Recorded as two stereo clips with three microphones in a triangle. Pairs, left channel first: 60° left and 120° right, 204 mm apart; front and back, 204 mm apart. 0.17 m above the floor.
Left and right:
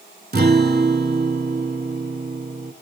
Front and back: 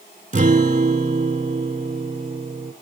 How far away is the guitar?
About 0.6 m.